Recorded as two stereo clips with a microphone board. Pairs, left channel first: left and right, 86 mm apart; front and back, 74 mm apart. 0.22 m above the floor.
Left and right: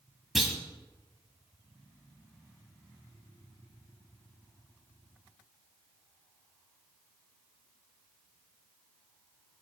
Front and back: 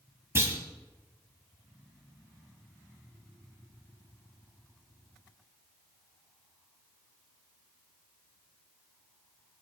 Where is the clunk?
175° right, 1.5 m.